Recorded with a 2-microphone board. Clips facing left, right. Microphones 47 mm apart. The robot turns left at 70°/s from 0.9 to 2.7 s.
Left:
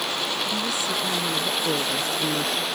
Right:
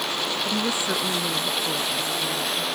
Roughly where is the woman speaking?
Behind right.